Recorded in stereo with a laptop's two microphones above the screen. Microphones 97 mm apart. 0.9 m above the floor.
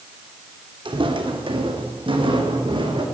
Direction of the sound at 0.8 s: 60° right (ahead or behind).